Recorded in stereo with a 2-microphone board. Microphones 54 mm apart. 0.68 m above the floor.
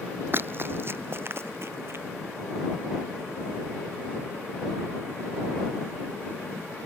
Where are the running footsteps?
40° right (ahead or behind); by 2.0 s 50° right (ahead or behind).